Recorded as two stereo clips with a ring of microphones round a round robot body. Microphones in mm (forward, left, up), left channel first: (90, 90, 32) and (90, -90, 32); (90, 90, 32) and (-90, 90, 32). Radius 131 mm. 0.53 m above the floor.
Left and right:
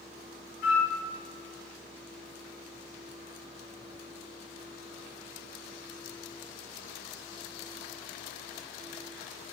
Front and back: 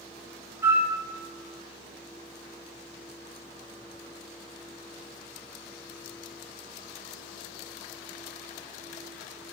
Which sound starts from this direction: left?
A flute, at 0.6 s.